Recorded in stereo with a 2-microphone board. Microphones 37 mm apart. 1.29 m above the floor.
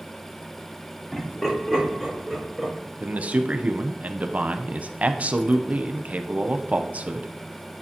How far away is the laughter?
About 3.5 m.